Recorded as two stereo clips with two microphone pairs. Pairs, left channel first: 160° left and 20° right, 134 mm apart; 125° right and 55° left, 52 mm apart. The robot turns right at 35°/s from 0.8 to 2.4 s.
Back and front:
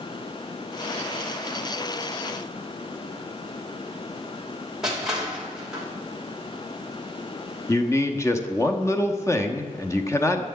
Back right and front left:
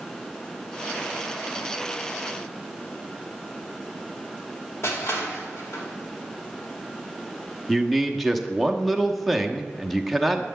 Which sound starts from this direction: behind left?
A man speaking, at 7.7 s.